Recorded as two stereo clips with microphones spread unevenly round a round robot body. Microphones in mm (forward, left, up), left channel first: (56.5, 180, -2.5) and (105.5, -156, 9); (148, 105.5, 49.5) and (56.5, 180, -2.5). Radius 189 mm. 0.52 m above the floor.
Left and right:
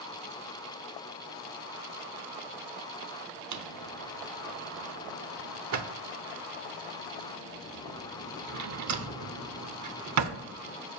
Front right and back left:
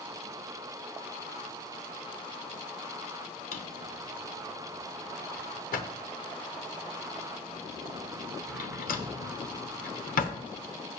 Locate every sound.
3.5 s a drawer: 40° right, 0.9 m